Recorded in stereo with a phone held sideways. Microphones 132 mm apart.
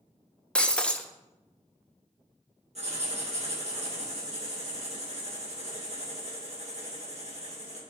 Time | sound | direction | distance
0.6 | breaking glass | 5° left (ahead or behind) | 0.5 m
2.8 | writing | 55° right (ahead or behind) | 1.8 m